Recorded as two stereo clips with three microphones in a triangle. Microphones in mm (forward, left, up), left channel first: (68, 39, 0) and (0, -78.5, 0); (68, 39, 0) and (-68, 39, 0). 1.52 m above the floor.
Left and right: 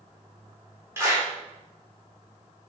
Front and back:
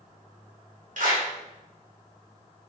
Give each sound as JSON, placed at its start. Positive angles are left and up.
{"t": 1.0, "sound": "a clap", "azimuth_deg": 170, "distance_m": 3.0}